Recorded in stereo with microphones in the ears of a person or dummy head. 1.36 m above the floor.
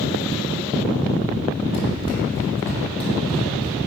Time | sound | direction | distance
1.7 | running footsteps | 35° left (ahead or behind) | 1.9 m